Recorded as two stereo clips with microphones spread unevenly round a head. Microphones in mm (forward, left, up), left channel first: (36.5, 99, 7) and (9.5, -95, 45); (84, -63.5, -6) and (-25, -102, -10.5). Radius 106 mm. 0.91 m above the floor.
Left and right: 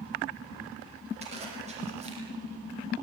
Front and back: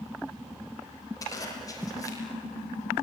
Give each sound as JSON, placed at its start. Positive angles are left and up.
{"t": 1.2, "sound": "a zipper", "azimuth_deg": -40, "distance_m": 6.5}